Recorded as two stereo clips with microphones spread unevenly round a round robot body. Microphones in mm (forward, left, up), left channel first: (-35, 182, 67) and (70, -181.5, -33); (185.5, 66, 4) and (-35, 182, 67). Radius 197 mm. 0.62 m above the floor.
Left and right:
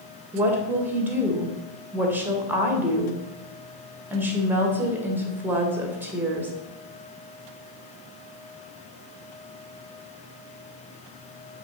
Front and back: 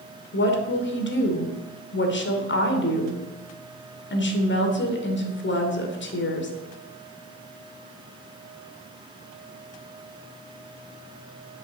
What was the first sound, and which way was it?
A woman speaking, 5° left.